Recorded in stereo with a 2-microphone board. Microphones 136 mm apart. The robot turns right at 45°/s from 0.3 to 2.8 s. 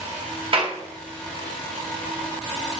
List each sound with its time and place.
0.5 s a clap: 40° right (ahead or behind), 0.9 m